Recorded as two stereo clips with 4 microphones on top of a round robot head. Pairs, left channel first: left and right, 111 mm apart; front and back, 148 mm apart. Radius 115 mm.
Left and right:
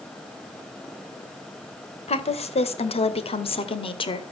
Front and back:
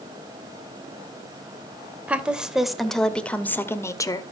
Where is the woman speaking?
100° left, 2.5 m; by 4.2 s 60° left, 1.8 m.